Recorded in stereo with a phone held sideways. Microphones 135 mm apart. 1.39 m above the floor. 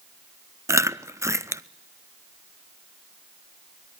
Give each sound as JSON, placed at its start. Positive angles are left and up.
{"t": 0.7, "sound": "chewing", "side_deg": -25, "distance_m": 0.6}